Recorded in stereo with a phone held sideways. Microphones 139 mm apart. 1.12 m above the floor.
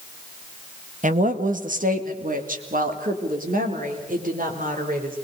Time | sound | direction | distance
1.0 | a woman speaking | 65° right (ahead or behind) | 1.4 m